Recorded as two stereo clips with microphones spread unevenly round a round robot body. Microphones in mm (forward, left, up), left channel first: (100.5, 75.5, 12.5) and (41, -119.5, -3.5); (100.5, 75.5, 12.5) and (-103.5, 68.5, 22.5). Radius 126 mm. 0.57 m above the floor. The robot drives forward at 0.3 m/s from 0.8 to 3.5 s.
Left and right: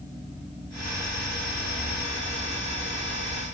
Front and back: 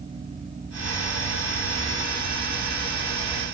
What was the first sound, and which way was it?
Only background noise.